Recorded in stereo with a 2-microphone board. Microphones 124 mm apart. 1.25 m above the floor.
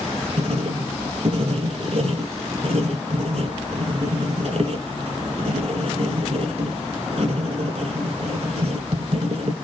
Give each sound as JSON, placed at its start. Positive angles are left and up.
{"t": 0.4, "sound": "writing", "side_deg": -60, "distance_m": 1.6}